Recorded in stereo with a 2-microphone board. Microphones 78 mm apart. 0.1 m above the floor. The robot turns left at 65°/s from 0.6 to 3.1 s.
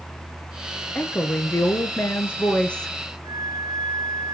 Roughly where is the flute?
Right.